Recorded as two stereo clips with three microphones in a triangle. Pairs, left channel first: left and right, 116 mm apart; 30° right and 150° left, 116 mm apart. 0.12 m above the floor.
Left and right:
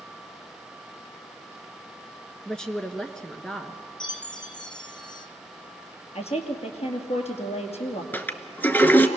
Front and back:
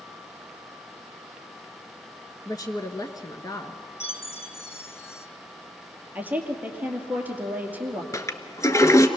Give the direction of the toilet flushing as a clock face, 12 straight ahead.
11 o'clock.